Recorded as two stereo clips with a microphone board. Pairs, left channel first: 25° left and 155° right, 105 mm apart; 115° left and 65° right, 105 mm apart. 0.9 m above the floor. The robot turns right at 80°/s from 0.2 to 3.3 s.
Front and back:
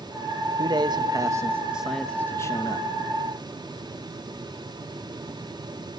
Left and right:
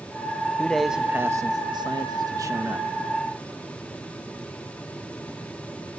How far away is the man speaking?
About 0.9 m.